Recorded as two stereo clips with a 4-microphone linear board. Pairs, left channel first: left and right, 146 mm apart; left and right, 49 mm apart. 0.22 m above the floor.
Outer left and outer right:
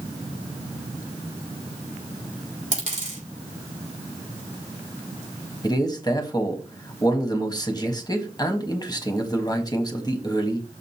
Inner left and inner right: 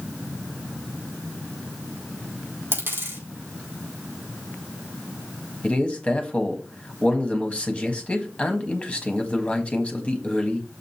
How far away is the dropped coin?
About 4.5 m.